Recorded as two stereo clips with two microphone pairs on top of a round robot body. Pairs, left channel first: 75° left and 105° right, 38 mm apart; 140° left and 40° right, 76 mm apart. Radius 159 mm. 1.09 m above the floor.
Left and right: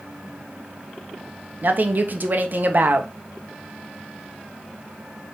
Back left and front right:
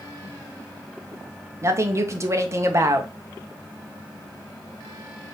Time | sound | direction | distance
1.6 | a woman speaking | 75° right | 0.8 m